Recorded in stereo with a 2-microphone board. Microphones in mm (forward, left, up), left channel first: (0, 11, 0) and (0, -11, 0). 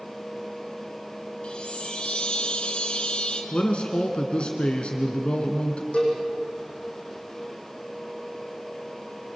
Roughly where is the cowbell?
Left.